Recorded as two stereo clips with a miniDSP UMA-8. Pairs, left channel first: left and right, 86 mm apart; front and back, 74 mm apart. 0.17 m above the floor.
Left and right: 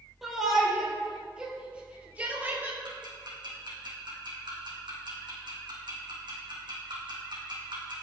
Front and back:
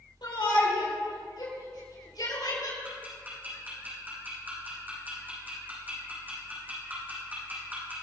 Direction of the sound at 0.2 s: Straight ahead.